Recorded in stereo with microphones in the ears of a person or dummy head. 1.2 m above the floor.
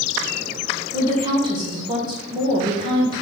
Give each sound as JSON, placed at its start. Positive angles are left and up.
{"t": 0.9, "sound": "a woman speaking", "side_deg": -25, "distance_m": 1.4}